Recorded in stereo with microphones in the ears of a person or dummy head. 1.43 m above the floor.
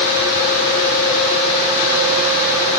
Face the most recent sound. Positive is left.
No sound to turn to.